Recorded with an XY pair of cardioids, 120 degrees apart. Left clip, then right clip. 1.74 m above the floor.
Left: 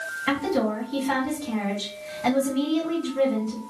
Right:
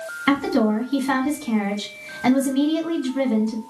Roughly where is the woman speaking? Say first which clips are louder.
Right 5 dB; ahead right.